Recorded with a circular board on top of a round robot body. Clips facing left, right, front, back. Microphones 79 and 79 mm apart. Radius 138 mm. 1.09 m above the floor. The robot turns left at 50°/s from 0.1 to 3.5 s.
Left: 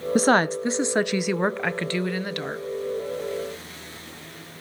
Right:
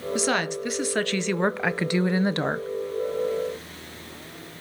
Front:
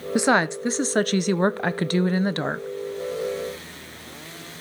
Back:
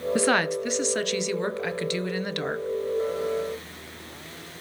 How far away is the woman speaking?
About 0.9 m.